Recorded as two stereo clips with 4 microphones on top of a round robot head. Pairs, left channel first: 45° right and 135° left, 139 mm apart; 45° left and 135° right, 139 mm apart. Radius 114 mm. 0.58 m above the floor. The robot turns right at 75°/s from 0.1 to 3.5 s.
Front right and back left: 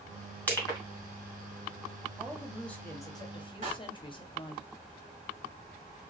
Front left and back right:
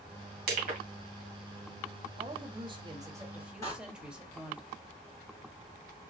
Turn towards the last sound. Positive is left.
turn(degrees=110)